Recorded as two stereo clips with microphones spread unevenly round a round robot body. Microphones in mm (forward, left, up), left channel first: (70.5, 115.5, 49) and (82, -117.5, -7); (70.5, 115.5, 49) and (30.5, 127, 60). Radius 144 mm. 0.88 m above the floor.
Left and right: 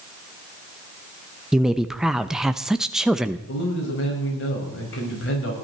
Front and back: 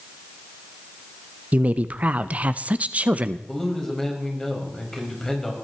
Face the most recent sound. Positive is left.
turn(degrees=60)